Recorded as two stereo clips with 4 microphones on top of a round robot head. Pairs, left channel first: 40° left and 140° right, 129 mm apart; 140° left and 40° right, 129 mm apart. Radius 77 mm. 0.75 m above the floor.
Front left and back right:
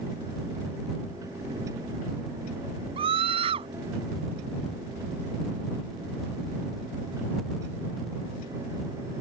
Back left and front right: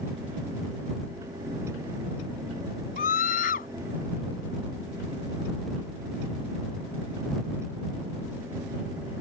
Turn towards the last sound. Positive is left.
turn(degrees=170)